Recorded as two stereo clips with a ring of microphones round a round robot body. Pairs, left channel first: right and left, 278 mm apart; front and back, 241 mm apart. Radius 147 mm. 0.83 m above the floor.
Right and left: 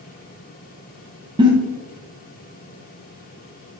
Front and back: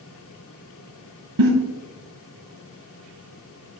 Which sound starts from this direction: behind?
A giggle, at 1.4 s.